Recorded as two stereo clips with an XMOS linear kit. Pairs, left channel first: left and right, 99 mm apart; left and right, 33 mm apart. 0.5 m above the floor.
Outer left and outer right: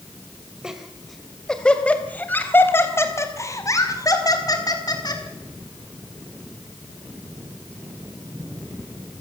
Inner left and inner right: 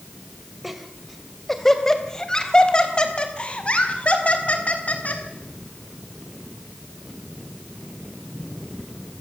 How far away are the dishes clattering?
No dishes clattering in this recording.